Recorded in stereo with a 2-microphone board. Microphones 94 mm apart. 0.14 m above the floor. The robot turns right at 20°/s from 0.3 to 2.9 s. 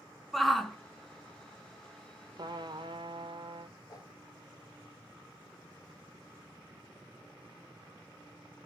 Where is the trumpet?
50° right (ahead or behind), 0.6 m; by 3.8 s 60° right (ahead or behind), 0.6 m.